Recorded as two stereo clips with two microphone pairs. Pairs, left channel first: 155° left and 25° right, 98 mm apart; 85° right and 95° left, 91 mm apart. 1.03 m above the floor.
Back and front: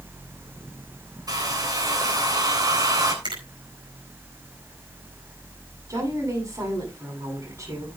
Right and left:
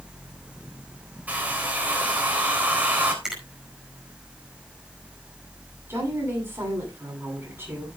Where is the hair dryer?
25° left, 3 m.